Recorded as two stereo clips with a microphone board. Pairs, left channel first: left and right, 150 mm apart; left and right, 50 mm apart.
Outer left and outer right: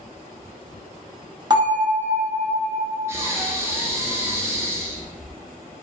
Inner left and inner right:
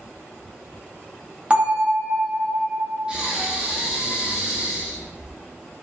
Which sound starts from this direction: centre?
Breathing, at 3.1 s.